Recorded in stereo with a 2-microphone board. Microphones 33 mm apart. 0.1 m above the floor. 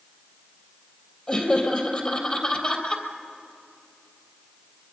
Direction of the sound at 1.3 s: 30° left (ahead or behind).